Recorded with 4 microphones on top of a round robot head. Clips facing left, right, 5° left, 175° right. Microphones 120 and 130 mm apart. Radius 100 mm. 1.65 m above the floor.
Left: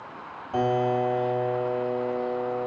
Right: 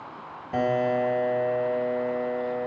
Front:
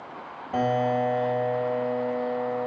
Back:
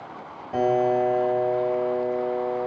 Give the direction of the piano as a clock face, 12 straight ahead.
3 o'clock.